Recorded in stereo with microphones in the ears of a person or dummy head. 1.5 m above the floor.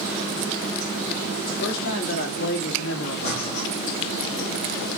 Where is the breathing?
35° left (ahead or behind), 4.5 m.